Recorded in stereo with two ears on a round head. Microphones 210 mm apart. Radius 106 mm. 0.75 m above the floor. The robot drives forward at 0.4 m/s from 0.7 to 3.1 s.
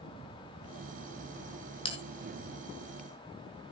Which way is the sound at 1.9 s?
25° left (ahead or behind).